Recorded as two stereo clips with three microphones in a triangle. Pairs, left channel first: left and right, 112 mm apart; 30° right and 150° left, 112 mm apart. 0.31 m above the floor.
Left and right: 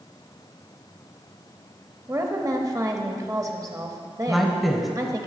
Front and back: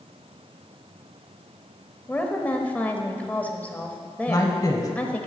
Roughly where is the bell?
No bell in this recording.